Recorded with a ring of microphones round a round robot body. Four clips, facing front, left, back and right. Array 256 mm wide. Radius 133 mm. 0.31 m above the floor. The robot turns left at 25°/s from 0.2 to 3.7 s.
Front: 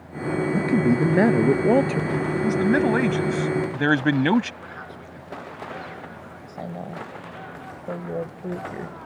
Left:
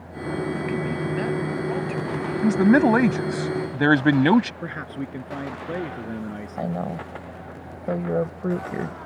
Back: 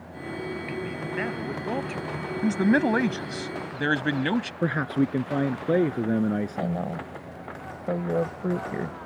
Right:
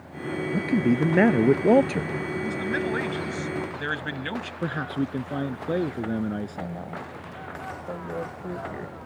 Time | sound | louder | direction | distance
0.5 | a man speaking | right 4 dB, front 12 dB | 25° right | ?
2.4 | a man speaking | left 15 dB, even | 100° left | ?
4.6 | a man speaking | right 4 dB, back 14 dB | 165° right | ?
6.6 | a woman speaking | left 6 dB, back 4 dB | 110° left | ?